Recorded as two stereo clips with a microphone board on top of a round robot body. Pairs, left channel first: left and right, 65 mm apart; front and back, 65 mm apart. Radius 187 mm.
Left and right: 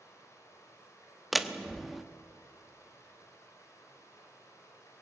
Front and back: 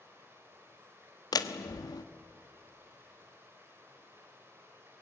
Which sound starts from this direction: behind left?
Running water, at 0.0 s.